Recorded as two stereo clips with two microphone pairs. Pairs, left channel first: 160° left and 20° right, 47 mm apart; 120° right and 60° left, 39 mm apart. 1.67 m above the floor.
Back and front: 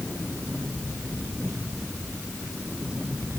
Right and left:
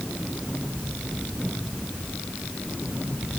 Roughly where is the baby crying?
I don't hear a baby crying.